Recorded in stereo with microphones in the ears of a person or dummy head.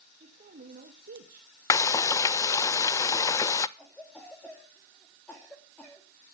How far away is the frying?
About 0.5 m.